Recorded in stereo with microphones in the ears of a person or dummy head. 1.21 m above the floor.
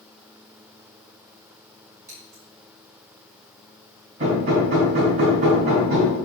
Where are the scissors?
20° right (ahead or behind), 4.5 m.